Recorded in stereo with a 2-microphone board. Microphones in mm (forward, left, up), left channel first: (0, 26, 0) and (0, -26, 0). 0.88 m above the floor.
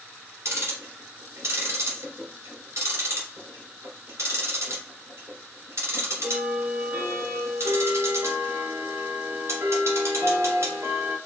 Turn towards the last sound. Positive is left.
turn(degrees=-60)  # may be behind; listen again after turning